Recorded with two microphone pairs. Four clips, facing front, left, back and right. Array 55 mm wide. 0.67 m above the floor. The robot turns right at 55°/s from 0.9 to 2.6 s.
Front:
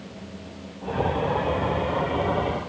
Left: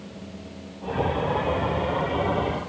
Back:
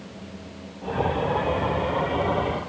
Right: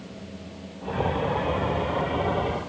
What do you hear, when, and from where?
Only background noise.